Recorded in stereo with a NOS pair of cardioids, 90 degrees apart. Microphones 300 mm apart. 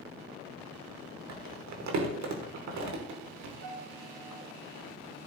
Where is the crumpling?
65° right, 2.5 m.